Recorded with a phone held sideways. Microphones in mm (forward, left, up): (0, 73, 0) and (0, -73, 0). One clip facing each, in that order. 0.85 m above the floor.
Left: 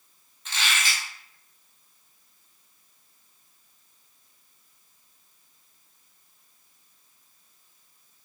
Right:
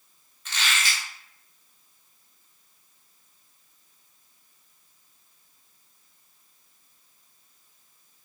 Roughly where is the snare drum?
No snare drum in this recording.